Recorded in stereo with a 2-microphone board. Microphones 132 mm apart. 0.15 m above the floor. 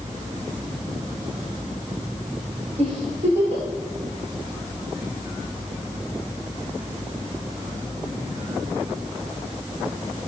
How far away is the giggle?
About 8.5 m.